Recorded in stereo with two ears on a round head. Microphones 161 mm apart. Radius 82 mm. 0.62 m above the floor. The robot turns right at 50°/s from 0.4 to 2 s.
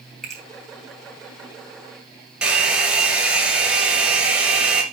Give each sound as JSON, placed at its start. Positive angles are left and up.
{"t": 0.2, "sound": "a finger snap", "side_deg": 0, "distance_m": 4.0}
{"t": 2.4, "sound": "a hair dryer", "side_deg": -5, "distance_m": 1.9}